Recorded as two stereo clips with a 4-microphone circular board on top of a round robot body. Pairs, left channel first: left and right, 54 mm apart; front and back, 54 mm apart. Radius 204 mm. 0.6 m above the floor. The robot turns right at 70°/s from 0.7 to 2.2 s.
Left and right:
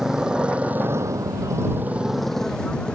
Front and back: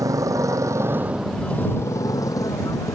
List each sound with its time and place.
0.0 s a motorcycle: 170° right; by 3.0 s 20° left